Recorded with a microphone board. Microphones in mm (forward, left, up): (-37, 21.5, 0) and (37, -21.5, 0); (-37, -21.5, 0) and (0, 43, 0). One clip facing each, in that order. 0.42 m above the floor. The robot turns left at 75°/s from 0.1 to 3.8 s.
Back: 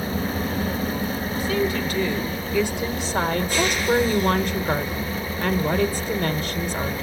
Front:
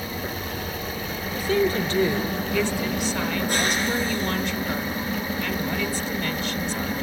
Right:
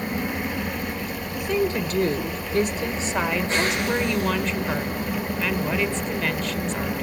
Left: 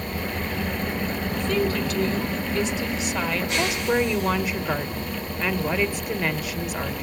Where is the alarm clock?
No alarm clock in this recording.